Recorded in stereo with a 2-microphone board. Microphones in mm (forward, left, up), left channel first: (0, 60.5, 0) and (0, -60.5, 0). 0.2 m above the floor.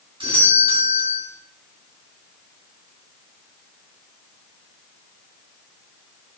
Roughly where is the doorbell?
Right.